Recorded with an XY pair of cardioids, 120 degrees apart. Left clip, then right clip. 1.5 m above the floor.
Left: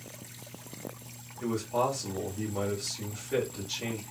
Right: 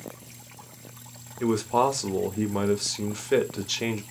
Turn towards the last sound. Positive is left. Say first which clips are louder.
# right 6 dB
turn(degrees=-60)